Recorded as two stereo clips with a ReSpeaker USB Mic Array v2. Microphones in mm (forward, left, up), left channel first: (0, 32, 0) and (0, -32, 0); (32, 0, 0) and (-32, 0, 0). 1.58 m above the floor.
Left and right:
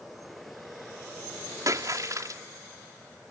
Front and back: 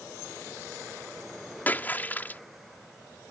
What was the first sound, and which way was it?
A splash, 65° right.